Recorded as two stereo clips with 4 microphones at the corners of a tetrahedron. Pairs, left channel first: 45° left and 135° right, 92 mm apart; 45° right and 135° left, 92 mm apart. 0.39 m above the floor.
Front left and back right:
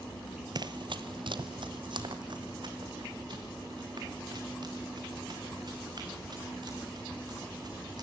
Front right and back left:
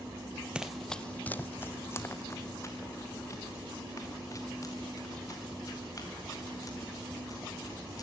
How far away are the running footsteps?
About 0.6 m.